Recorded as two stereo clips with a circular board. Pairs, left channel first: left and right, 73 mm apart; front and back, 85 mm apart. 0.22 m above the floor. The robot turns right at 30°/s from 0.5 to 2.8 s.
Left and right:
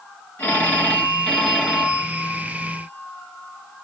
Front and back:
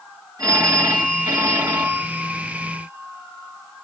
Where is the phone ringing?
150° left, 1.2 m; by 3.9 s 140° right, 1.2 m.